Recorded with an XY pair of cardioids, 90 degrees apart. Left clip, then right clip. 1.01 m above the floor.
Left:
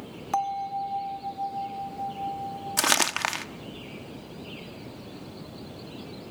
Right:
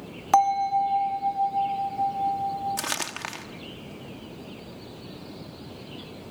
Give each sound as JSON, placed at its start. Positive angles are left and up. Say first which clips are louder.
{"t": 0.3, "sound": "a bell", "louder": "right 8 dB", "azimuth_deg": -60, "distance_m": 0.8}
{"t": 2.8, "sound": "crumpling", "louder": "left 7 dB", "azimuth_deg": 55, "distance_m": 1.1}